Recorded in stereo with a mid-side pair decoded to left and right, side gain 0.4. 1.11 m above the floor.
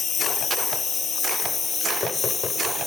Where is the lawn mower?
50° left; by 2.9 s 35° left.